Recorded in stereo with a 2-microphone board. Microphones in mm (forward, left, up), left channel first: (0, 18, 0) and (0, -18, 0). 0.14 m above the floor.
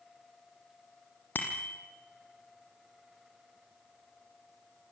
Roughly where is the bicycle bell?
Left.